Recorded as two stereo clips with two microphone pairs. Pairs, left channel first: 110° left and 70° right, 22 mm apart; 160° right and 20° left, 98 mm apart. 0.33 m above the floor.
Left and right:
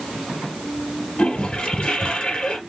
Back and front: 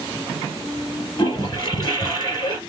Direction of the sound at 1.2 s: 160° left.